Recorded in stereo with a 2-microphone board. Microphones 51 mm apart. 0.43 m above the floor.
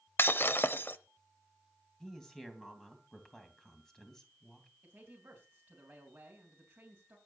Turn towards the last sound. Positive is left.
turn(degrees=-25)  # may be behind; listen again after turning